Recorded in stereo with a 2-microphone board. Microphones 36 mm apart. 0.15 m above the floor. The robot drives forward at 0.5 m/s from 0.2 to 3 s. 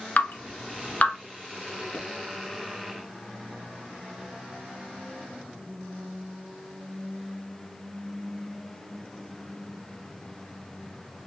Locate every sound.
0.2 s dripping: 45° left (ahead or behind), 1.0 m
1.9 s a pop: 40° left (ahead or behind), 1.5 m